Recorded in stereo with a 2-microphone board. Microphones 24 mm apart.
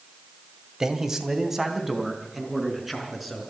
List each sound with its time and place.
0.8 s a man speaking: 25° right (ahead or behind), 2 m; by 3.4 s centre (ahead or behind), 5.5 m